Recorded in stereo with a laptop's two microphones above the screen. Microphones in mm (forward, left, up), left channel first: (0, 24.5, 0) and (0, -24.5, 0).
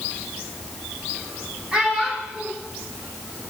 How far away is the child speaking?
About 1.9 m.